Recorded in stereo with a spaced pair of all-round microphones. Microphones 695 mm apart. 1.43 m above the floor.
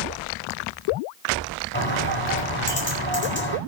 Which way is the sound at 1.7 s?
15° left (ahead or behind).